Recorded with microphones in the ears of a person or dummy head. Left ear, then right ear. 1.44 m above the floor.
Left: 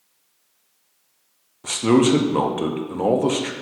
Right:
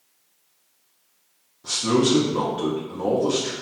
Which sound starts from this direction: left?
A man speaking, at 1.6 s.